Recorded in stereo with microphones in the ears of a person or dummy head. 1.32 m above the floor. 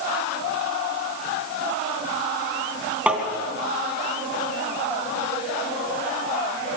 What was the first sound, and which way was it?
Tapping, 5° right (ahead or behind).